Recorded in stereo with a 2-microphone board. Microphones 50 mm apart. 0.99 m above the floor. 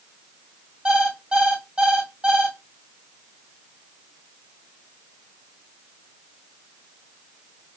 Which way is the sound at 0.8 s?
20° right (ahead or behind).